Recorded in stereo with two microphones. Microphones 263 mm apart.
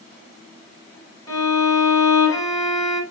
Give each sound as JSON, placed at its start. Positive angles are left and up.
{"t": 1.3, "sound": "a violin", "side_deg": 15, "distance_m": 0.8}